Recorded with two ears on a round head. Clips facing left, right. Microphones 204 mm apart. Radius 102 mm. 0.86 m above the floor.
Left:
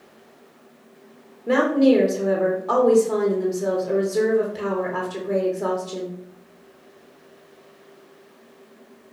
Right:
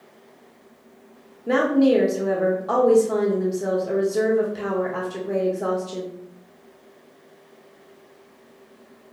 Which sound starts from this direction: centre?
A woman speaking, at 1.5 s.